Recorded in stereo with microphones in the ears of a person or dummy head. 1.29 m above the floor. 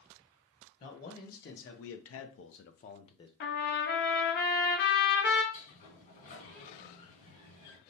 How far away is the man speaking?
About 1.3 m.